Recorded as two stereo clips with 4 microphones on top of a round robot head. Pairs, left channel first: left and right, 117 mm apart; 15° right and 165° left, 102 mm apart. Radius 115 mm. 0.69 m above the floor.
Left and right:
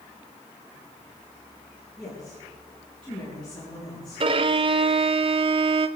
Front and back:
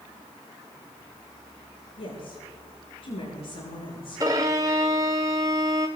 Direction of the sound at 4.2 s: 125° right.